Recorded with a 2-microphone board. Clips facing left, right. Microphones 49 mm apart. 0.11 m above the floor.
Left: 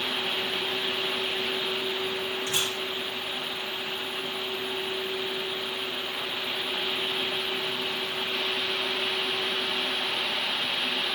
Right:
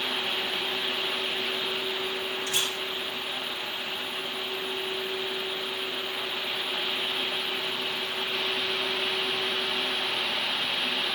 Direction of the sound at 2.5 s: 25° left (ahead or behind).